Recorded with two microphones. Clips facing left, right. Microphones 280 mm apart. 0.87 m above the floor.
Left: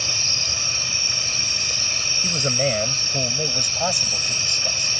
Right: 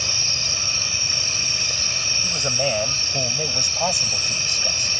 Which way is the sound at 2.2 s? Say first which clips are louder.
Left 2 dB; 30° left (ahead or behind).